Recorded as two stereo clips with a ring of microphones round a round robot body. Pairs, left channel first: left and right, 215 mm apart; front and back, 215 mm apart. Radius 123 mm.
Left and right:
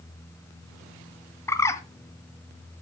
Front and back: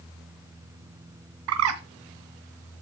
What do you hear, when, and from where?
1.5 s a bird: 170° left, 1.3 m